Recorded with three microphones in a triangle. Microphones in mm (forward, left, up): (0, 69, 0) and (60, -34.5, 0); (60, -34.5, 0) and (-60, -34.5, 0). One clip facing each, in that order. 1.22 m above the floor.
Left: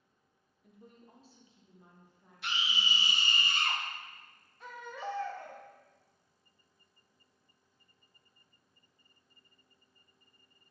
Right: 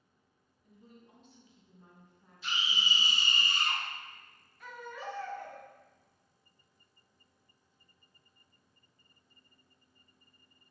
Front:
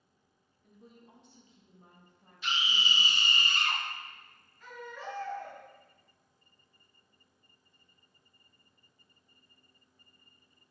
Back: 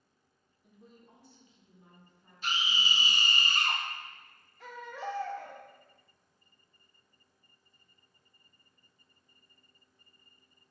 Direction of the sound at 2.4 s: 135° left.